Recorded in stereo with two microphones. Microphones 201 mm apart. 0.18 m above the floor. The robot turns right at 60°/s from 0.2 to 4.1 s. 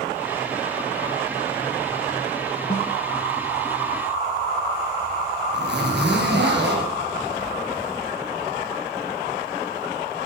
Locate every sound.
2.7 s a snare drum: 40° left (ahead or behind), 1.6 m; by 2.9 s 45° left (ahead or behind), 1.6 m
5.5 s a zipper: 65° right (ahead or behind), 3.5 m